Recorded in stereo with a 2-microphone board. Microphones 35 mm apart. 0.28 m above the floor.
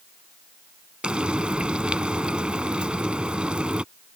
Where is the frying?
30° right (ahead or behind).